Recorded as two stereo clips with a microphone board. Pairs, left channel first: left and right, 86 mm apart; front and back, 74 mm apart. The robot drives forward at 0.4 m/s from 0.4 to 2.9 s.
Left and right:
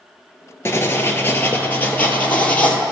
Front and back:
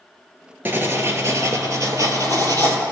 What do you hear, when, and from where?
0.7 s writing: 135° left, 0.9 m; by 2.8 s 160° left, 1.5 m